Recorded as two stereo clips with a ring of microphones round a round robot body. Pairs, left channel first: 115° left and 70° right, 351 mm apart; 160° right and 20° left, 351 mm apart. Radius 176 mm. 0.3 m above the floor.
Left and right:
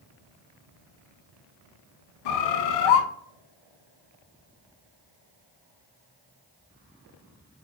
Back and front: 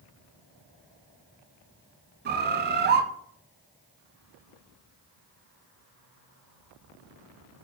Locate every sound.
2.2 s a bird: 85° left, 0.7 m